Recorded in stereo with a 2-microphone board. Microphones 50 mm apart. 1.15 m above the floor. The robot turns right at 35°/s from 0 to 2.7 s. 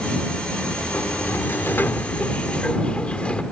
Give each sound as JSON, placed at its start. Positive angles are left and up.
{"t": 0.9, "sound": "a sliding door", "azimuth_deg": 85}